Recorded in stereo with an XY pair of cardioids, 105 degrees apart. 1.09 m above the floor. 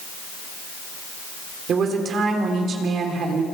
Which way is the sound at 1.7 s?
60° right.